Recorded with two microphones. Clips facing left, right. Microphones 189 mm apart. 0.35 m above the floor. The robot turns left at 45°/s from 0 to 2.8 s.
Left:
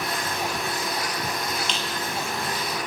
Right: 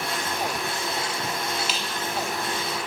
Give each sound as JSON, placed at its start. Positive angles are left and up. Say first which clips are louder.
{"t": 1.7, "sound": "a squeak", "louder": "even", "side_deg": -5, "distance_m": 7.0}